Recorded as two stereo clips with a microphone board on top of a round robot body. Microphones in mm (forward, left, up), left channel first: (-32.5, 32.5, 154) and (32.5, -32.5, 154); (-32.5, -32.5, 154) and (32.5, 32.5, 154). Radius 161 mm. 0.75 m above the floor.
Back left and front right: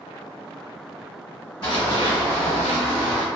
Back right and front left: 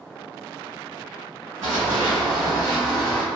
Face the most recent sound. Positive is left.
turn(degrees=145)